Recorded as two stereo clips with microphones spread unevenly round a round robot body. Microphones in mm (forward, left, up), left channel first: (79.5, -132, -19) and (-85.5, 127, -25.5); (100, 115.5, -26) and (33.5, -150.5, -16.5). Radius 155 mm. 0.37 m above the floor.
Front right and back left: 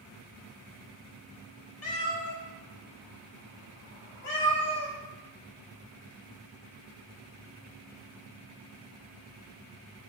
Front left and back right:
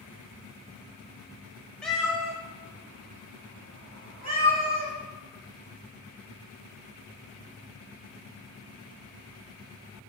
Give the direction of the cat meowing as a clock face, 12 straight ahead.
12 o'clock.